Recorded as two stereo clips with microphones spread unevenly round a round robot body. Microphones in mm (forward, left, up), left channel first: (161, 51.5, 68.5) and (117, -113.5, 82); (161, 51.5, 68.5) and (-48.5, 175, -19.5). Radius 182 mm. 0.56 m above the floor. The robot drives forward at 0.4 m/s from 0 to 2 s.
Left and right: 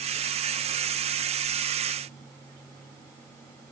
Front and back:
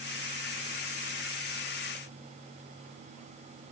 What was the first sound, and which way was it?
Only background noise.